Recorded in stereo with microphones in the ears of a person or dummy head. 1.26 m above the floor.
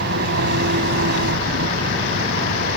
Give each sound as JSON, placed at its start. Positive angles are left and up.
{"t": 0.0, "sound": "an engine running", "side_deg": -60}